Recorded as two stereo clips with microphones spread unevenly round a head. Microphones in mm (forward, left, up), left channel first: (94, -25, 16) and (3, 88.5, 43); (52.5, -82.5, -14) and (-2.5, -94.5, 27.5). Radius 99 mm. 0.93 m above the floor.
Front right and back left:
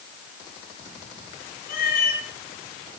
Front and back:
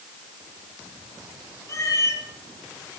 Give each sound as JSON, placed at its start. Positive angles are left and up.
{"t": 1.7, "sound": "a cat meowing", "azimuth_deg": -25, "distance_m": 5.0}